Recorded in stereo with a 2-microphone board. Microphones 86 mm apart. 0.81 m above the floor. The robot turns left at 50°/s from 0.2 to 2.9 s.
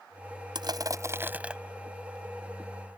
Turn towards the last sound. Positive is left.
turn(degrees=120)